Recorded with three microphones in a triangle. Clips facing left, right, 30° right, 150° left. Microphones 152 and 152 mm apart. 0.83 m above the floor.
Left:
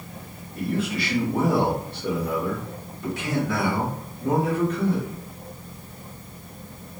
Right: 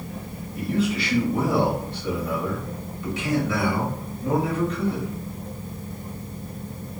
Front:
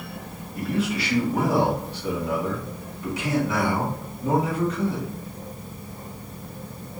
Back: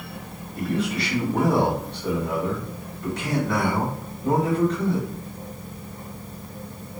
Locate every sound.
0.6 s a man speaking: 50° left, 1.3 m